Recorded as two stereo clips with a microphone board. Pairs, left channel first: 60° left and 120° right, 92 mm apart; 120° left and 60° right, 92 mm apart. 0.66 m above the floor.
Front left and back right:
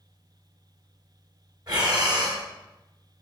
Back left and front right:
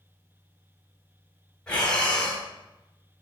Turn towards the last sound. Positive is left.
turn(degrees=-160)